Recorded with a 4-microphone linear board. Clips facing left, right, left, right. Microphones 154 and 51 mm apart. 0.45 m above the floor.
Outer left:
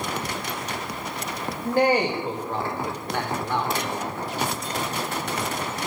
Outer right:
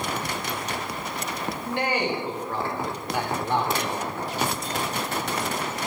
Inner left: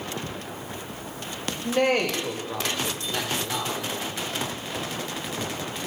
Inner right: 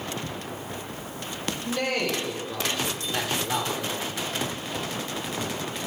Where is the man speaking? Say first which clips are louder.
Outer left 7 dB, inner left 5 dB; 45° left (ahead or behind), 1.9 m; by 4.1 s 45° right (ahead or behind), 1.3 m.